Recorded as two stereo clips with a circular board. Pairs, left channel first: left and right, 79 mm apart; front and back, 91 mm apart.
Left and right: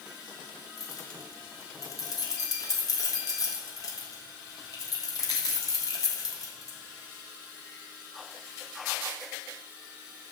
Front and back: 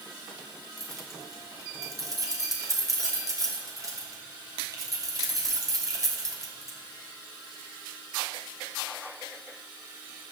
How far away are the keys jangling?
About 2.5 m.